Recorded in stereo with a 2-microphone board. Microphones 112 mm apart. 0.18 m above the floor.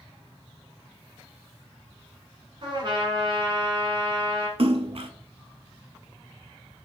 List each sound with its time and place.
2.6 s a trumpet: 45° right (ahead or behind), 1.5 m
4.6 s a splash: 55° right (ahead or behind), 0.5 m